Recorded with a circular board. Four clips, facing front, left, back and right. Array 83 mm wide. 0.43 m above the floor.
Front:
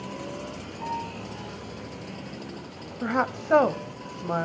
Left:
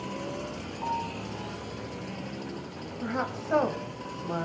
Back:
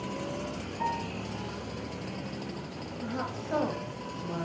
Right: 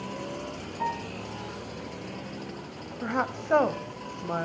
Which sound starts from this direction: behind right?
A piano, at 0.8 s.